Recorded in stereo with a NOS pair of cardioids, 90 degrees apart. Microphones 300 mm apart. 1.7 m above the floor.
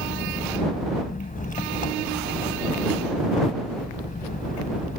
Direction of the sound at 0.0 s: 25° left.